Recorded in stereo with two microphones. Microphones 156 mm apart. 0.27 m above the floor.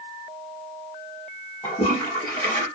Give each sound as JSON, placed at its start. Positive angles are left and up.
{"t": 1.6, "sound": "a toilet flushing", "side_deg": 20, "distance_m": 2.5}